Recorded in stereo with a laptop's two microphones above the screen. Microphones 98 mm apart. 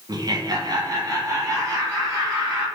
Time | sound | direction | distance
0.1 | laughter | 40° right (ahead or behind) | 0.7 m